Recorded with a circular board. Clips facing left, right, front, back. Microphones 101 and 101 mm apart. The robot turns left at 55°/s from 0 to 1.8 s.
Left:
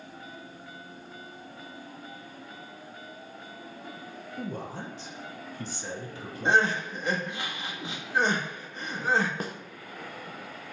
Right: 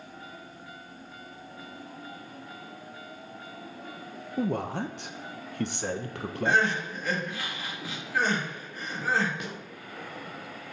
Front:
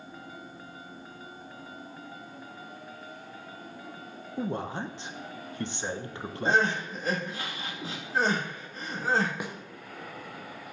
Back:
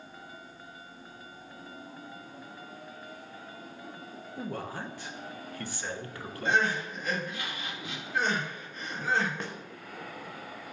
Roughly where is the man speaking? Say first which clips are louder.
Right 8 dB, front 5 dB; ahead right.